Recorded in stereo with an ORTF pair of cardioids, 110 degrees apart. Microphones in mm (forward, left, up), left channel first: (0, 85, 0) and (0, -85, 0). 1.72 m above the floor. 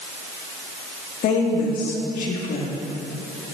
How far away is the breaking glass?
I don't hear breaking glass.